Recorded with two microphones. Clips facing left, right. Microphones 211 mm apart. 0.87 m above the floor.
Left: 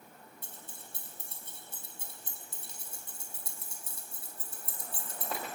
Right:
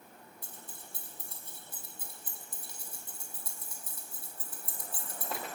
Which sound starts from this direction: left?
Keys jangling, at 0.4 s.